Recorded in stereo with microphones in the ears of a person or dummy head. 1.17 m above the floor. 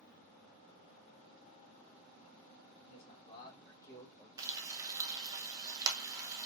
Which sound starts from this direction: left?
A man speaking, at 2.9 s.